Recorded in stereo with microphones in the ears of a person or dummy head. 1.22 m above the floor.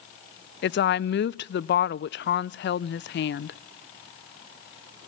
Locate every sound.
0.6 s a woman speaking: 50° left (ahead or behind), 0.5 m